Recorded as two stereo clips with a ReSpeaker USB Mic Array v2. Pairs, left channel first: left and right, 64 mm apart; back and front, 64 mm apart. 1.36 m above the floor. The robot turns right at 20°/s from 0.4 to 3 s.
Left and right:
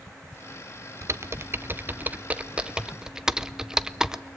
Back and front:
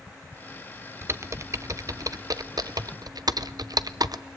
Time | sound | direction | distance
1.0 | typing on a keyboard | 50° right | 0.6 m